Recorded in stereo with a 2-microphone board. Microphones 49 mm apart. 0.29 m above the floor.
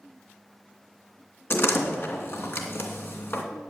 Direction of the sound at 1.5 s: 55° left (ahead or behind).